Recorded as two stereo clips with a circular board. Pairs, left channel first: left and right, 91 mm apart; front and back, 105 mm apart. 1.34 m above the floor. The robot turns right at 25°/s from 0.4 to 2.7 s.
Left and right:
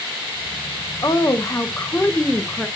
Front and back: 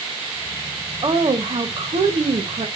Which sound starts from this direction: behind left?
A woman speaking, at 1.0 s.